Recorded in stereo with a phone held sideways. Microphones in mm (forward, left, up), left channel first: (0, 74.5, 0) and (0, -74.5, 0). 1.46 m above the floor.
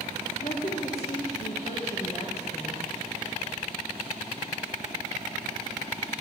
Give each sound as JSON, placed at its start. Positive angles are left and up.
{"t": 0.4, "sound": "a woman speaking", "side_deg": 45, "distance_m": 1.3}